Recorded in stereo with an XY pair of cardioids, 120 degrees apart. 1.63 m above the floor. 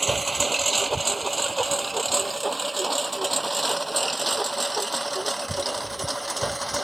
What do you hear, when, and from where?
0.0 s a lawn mower: 15° right; by 6.8 s 5° right